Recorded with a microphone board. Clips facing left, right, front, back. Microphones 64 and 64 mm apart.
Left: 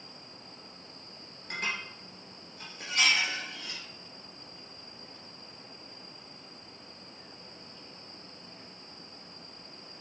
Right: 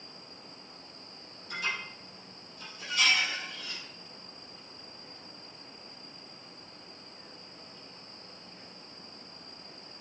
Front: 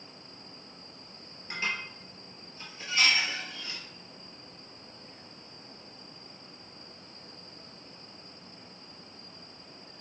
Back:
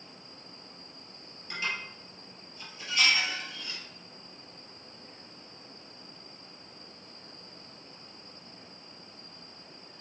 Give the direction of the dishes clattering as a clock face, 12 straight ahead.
10 o'clock.